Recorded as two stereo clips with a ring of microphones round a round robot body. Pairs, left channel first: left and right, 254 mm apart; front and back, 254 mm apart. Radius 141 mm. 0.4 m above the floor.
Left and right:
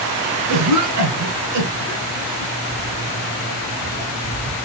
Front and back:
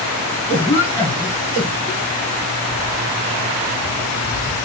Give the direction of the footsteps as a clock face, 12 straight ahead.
3 o'clock.